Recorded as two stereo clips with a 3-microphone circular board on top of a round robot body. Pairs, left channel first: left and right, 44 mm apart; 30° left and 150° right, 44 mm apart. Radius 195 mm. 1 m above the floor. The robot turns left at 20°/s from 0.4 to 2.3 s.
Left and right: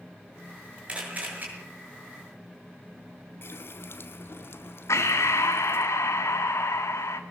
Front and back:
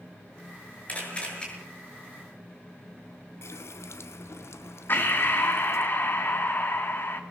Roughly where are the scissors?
I don't hear scissors.